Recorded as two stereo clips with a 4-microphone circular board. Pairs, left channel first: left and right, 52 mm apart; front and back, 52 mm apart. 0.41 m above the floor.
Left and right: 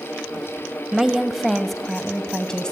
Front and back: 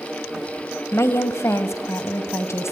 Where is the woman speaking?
10° right, 1.8 m; by 2.7 s 15° left, 2.5 m.